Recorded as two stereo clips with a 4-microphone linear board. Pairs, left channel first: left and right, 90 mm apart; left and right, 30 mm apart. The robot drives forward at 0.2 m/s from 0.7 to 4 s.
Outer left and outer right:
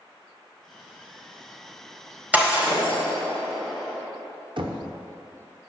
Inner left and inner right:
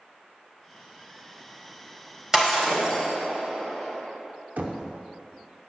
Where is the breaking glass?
20° right (ahead or behind), 3.5 m; by 3.1 s 15° right (ahead or behind), 3.5 m.